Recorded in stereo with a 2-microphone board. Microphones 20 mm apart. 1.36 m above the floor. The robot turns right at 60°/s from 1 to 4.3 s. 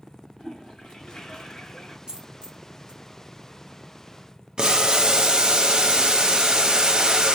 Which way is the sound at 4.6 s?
40° right (ahead or behind).